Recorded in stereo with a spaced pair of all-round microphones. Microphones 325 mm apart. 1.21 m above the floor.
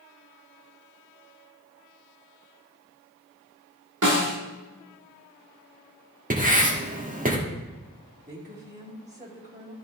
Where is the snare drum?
65° right (ahead or behind), 1.7 m.